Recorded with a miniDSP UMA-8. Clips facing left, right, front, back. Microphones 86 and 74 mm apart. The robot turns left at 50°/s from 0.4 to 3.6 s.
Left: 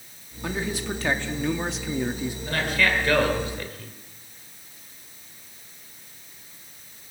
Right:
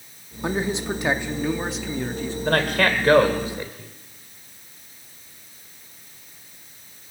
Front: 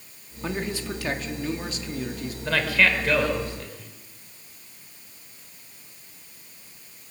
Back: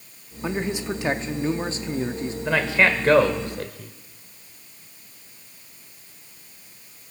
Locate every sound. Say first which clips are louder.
0.4 s a man speaking: right 4 dB, back 3 dB; 115° right, 0.8 m; by 2.4 s 150° left, 0.8 m
2.5 s a man speaking: right 4 dB, back 2 dB; 105° right, 1.9 m; by 3.9 s 160° right, 1.9 m